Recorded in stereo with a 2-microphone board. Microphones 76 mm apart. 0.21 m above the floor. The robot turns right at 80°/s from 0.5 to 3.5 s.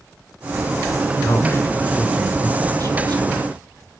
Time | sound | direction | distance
1.2 | a man speaking | 115° left | 2.5 m